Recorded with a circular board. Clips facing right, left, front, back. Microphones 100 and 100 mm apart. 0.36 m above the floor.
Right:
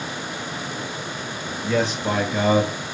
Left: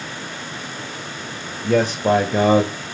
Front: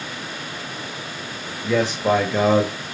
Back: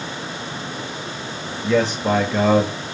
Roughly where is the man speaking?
Left.